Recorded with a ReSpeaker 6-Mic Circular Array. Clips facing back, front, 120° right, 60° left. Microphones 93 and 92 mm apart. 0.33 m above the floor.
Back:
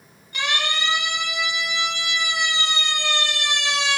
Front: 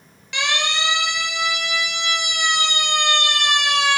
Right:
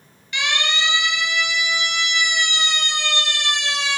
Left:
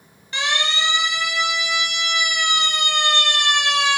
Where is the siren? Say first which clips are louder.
Front 2 dB, even; 5° left, 6.5 m; by 4.0 s 35° left, 4 m.